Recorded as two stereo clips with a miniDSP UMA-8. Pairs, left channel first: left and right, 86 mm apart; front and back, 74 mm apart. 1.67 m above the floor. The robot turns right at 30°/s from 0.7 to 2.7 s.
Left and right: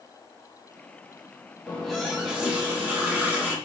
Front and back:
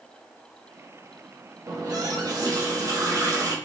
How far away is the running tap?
About 1.4 m.